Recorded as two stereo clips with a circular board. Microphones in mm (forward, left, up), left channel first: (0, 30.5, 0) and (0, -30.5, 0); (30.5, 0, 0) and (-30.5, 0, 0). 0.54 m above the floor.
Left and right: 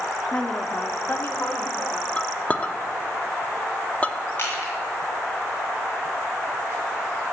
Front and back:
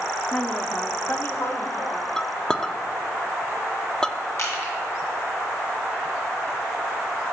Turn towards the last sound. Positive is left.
turn(degrees=35)